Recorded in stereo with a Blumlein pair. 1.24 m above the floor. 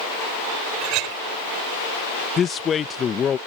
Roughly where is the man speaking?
Ahead left.